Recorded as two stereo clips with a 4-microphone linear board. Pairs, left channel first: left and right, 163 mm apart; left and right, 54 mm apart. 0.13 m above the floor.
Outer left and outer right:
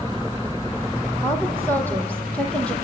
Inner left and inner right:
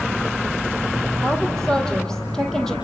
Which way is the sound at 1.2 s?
15° left (ahead or behind).